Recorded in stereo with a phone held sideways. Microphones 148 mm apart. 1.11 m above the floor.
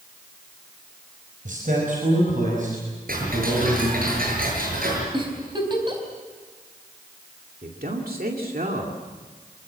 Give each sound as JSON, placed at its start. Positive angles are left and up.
{"t": 1.4, "sound": "a man speaking", "side_deg": -65, "distance_m": 5.0}
{"t": 3.1, "sound": "ticking", "side_deg": -75, "distance_m": 6.5}
{"t": 5.1, "sound": "a giggle", "side_deg": -35, "distance_m": 4.5}
{"t": 7.6, "sound": "a man speaking", "side_deg": -80, "distance_m": 2.5}